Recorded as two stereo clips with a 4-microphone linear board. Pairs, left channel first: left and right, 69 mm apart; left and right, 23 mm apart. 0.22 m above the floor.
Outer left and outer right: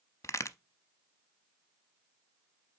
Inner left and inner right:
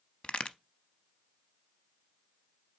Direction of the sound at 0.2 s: 45° left (ahead or behind).